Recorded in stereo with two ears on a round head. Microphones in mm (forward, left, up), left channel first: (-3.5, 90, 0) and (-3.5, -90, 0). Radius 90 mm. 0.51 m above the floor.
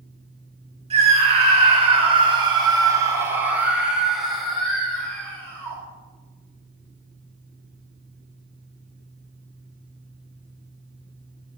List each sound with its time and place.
0.9 s a scream: 30° right (ahead or behind), 1.6 m; by 5.8 s 10° left (ahead or behind), 2 m